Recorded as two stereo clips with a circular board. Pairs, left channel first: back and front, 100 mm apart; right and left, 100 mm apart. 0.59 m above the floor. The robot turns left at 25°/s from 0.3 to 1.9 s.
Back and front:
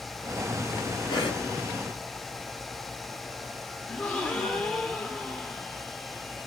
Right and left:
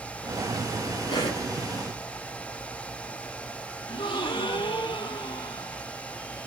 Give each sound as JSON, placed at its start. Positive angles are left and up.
{"t": 1.1, "sound": "a cough", "azimuth_deg": -135, "distance_m": 4.0}
{"t": 3.9, "sound": "a gasp", "azimuth_deg": -105, "distance_m": 1.7}